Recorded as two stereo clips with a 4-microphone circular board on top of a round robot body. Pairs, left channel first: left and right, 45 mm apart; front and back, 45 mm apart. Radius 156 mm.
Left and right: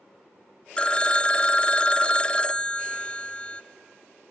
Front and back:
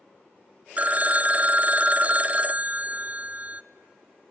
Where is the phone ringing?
145° left, 0.7 m.